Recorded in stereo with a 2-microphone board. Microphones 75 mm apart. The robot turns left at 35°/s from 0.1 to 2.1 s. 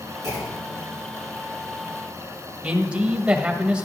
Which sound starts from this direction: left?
A clunk, at 0.2 s.